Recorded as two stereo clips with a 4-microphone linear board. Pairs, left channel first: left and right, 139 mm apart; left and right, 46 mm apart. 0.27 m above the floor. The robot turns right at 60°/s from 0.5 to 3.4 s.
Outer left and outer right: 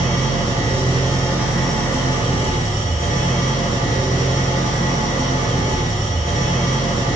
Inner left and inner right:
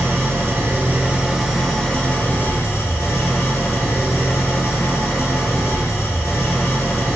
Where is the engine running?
70° right, 0.8 m; by 7.2 s 105° left, 0.8 m.